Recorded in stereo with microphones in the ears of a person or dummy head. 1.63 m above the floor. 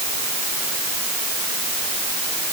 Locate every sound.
Only background noise.